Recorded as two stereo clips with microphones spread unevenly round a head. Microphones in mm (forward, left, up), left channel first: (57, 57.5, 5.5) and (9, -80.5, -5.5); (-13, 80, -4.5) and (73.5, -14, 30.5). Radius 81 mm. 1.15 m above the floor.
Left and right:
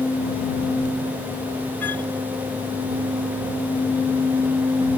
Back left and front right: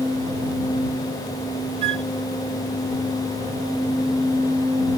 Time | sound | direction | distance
1.8 | a flute | 5° right | ?